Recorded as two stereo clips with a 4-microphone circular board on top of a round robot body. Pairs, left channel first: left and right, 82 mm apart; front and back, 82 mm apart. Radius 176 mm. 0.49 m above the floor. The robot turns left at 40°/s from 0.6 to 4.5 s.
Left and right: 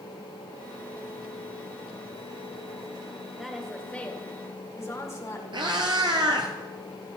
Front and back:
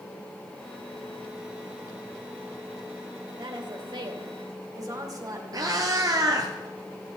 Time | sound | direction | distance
3.4 | a woman speaking | 175° right | 3 m
5.5 | a cat meowing | 130° right | 1.0 m